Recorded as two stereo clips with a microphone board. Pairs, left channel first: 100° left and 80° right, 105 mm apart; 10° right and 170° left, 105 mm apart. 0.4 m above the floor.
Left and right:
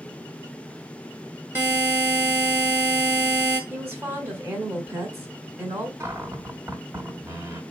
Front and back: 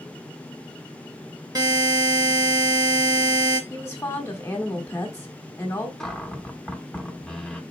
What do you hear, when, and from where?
1.6 s a buzzer: 140° right, 1.0 m
3.7 s a woman speaking: 40° right, 1.3 m
6.0 s a cupboard door: 85° right, 0.9 m